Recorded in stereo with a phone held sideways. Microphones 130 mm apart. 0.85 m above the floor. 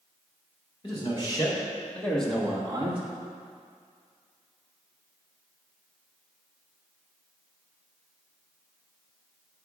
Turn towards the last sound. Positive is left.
turn(degrees=-45)  # may be behind; listen again after turning